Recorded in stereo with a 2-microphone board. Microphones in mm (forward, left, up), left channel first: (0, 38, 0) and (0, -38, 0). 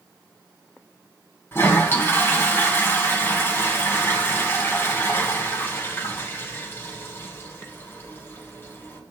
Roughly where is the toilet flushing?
Left.